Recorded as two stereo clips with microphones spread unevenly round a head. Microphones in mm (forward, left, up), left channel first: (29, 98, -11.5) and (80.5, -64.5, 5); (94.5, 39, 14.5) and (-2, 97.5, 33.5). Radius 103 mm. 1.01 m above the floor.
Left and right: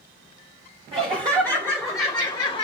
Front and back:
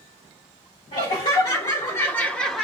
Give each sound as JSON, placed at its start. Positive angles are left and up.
{"t": 0.9, "sound": "laughter", "azimuth_deg": -15, "distance_m": 1.2}